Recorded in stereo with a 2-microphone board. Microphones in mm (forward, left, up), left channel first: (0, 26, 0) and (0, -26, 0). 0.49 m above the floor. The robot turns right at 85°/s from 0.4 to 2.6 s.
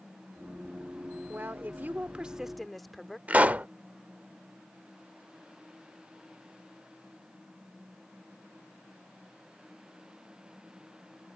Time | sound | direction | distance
1.3 | a woman speaking | 110° right | ?
3.3 | a pop | 30° right (ahead or behind) | ?